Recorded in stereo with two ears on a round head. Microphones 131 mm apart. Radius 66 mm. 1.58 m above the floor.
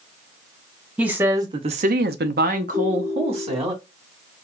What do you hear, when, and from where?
1.0 s a woman speaking: 10° right (ahead or behind), 1.0 m; by 3.7 s 40° right (ahead or behind), 1.6 m
2.7 s a ringtone: 25° right (ahead or behind), 1.6 m